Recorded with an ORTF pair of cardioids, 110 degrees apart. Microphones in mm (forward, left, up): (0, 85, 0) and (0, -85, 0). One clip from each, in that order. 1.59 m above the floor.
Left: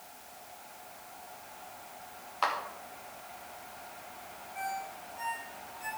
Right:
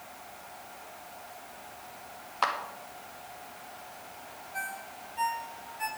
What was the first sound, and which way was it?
A clap, 20° right.